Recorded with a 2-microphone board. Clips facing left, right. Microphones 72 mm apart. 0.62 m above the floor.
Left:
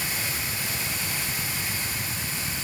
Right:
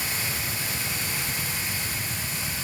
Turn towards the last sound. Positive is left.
No sound to turn to.